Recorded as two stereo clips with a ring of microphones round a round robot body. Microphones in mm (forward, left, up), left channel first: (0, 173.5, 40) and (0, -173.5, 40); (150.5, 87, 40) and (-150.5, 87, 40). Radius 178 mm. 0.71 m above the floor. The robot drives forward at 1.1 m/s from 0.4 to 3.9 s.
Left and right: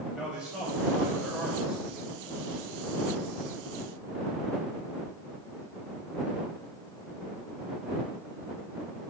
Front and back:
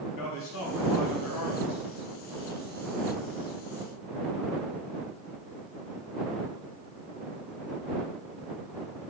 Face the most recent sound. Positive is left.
turn(degrees=-25)